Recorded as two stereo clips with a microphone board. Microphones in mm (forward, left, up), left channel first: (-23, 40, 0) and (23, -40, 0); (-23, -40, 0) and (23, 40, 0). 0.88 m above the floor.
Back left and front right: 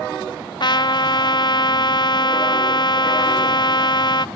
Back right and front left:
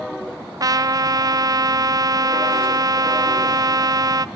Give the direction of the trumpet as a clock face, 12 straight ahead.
9 o'clock.